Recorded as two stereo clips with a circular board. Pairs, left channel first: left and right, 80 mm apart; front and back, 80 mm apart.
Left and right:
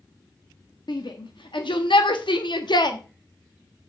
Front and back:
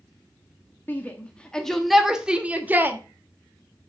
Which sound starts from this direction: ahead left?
A shout, at 0.9 s.